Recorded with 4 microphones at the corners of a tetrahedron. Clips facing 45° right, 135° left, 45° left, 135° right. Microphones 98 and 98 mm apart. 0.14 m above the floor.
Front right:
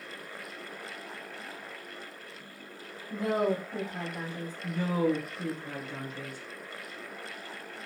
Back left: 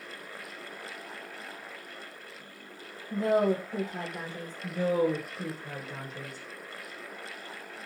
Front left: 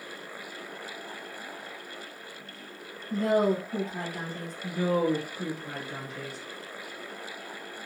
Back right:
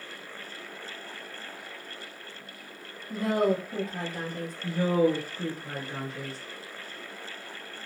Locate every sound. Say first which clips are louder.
3.1 s a woman speaking: back left 3 dB, front left 1 dB; 170° right, 2 m
4.6 s a woman speaking: back left 2 dB, back right 2 dB; 175° right, 1.9 m